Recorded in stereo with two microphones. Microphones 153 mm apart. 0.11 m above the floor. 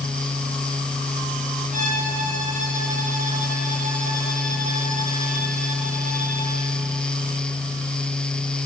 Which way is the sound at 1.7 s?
55° right (ahead or behind).